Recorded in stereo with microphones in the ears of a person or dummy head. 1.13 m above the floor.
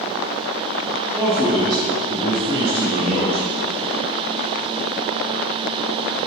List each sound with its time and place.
1.1 s a man speaking: 15° right (ahead or behind), 2.5 m; by 3.5 s 40° right (ahead or behind), 4.5 m